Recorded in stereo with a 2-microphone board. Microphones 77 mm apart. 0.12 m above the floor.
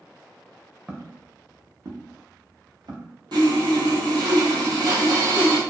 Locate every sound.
0.9 s footsteps: 20° right (ahead or behind), 0.7 m; by 3.1 s 80° right, 1.5 m
3.3 s sawing: 70° right (ahead or behind), 1.2 m